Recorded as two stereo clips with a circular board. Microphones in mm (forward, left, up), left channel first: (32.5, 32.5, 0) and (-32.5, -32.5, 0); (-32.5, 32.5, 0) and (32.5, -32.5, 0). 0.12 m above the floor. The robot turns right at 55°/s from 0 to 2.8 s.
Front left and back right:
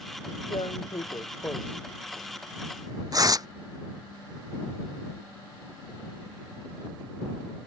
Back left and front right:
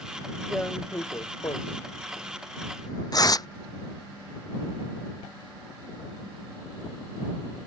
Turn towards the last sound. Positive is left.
turn(degrees=180)